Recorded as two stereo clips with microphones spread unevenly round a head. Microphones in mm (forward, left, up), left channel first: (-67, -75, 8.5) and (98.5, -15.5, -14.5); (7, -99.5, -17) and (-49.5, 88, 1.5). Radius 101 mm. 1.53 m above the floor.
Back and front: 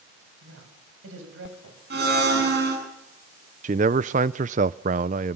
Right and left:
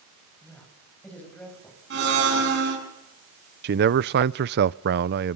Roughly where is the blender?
Left.